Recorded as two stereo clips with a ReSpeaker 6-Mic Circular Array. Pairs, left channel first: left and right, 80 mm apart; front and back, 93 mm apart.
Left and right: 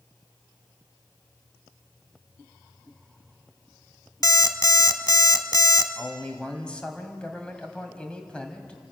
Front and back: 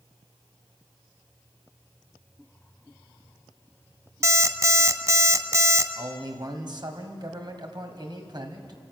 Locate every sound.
4.2 s an alarm clock: 125° left, 1.0 m
6.0 s a man speaking: 165° left, 2.5 m